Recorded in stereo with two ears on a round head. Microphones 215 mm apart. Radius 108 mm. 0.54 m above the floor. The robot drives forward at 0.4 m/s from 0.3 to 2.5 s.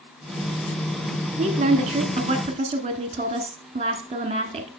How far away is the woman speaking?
About 1.2 m.